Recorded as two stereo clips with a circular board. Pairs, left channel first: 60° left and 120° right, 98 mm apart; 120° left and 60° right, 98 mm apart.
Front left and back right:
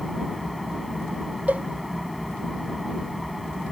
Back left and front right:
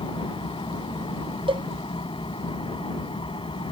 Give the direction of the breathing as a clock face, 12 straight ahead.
No breathing in this recording.